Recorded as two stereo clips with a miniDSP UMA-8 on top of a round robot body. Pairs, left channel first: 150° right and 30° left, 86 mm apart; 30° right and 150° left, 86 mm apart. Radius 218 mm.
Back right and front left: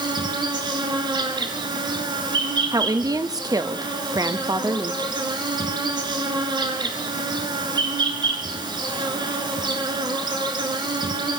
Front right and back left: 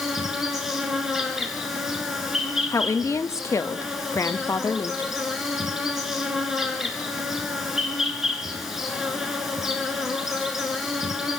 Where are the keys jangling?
No keys jangling in this recording.